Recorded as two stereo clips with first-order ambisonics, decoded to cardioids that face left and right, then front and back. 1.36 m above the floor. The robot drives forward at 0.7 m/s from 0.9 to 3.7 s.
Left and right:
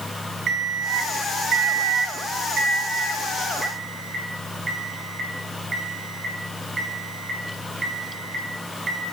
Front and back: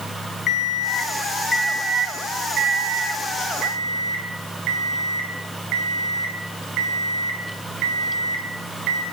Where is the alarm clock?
40° right, 0.9 m; by 9.0 s 160° right, 1.6 m.